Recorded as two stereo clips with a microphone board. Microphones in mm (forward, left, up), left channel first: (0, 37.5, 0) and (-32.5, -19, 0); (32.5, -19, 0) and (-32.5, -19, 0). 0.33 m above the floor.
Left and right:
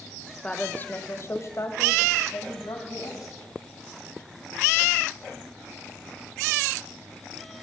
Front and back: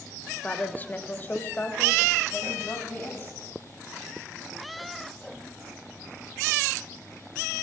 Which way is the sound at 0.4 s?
10° left.